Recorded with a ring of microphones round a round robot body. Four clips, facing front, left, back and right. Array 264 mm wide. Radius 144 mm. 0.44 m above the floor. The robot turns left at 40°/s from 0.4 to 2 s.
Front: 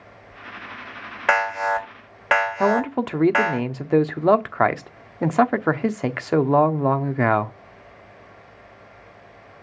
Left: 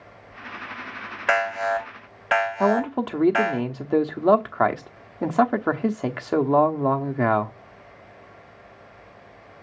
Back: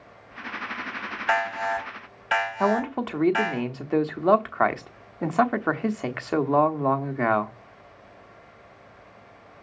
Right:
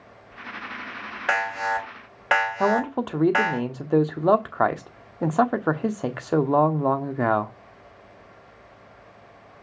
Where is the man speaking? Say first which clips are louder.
Left 1 dB, front 4 dB; 5° left, 0.8 m.